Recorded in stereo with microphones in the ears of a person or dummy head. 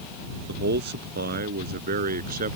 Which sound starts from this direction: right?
A man speaking, at 0.5 s.